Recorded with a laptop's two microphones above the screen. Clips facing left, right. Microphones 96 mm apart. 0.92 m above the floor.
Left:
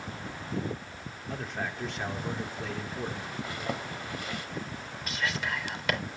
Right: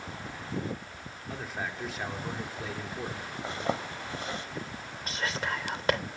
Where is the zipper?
30° right (ahead or behind), 0.9 m.